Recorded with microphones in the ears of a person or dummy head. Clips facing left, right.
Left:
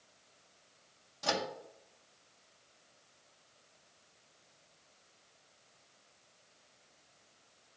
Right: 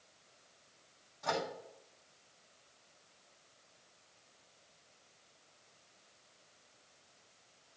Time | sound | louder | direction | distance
1.2 | a microwave | left 1 dB | 50° left (ahead or behind) | 1.6 m